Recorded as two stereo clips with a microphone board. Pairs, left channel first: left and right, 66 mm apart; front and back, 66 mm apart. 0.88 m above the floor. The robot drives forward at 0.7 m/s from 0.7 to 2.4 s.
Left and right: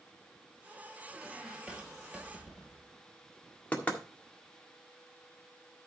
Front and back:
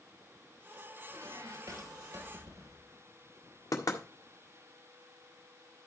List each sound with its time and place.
1.1 s a squeak: 160° right, 1.5 m; by 3.0 s 170° right, 2.5 m
3.7 s knocking: 20° left, 1.7 m